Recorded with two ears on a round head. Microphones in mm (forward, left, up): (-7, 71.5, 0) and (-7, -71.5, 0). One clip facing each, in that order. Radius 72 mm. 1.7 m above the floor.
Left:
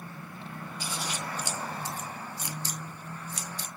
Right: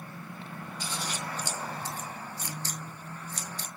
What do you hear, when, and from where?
0.8 s scissors: 10° left (ahead or behind), 0.7 m